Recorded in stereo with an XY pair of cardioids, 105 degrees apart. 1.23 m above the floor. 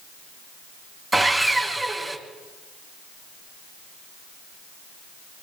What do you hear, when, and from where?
1.1 s sawing: 25° right, 4 m